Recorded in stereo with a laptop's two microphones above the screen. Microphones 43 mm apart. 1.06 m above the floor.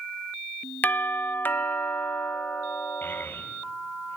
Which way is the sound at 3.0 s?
55° left (ahead or behind).